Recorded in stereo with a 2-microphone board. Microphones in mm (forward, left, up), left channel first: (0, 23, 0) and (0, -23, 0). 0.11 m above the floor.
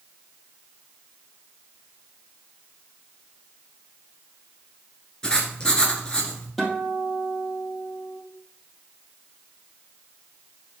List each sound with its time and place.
5.2 s writing: 20° left (ahead or behind), 1.5 m
6.6 s a guitar: 5° left (ahead or behind), 3.5 m